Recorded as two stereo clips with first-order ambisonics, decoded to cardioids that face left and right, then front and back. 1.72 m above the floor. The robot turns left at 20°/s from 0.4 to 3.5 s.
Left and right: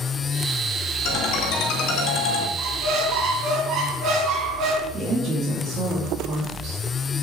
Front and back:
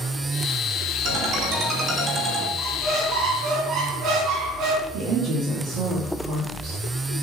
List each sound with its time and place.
1.1 s a ringtone: 140° left, 2.5 m; by 2.5 s 110° left, 2.5 m
2.6 s a squeak: 120° right, 3 m; by 4.8 s 135° right, 3 m
4.9 s a woman speaking: 155° right, 2.5 m